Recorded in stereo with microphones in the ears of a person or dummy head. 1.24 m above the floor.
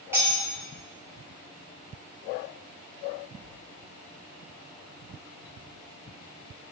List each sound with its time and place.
0.1 s cutlery clinking: 10° right (ahead or behind), 0.9 m